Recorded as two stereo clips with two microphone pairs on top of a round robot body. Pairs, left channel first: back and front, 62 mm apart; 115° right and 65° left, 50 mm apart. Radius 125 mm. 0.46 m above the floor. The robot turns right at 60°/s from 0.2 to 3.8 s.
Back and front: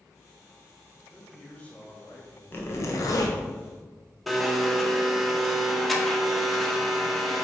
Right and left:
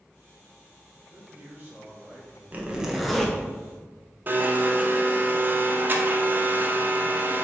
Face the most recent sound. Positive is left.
turn(degrees=90)